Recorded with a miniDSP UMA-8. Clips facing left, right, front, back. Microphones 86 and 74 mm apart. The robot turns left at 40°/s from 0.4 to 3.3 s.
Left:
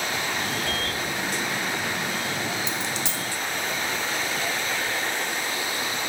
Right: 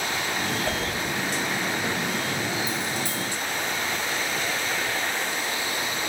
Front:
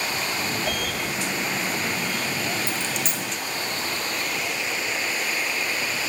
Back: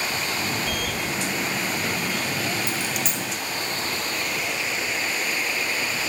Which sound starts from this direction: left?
A dropped coin, at 2.7 s.